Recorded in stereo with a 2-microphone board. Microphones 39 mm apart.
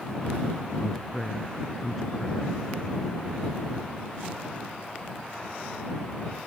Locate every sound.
0.8 s a man speaking: centre (ahead or behind)